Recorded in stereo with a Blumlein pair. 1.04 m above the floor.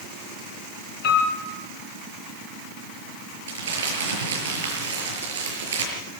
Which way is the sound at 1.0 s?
45° left.